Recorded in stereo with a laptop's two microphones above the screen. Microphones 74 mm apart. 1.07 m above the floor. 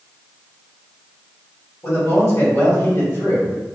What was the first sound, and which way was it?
A man speaking, 55° left (ahead or behind).